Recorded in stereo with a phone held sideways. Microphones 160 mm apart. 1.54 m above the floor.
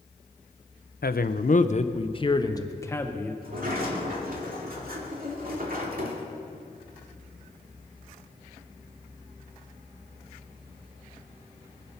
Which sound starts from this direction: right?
A sliding door, at 3.4 s.